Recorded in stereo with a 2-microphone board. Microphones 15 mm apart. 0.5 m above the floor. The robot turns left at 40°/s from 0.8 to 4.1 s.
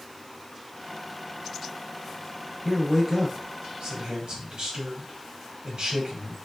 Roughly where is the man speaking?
Ahead.